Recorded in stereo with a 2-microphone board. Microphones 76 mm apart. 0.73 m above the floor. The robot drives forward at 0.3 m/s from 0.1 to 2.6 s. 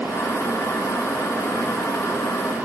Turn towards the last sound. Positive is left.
No sound to turn to.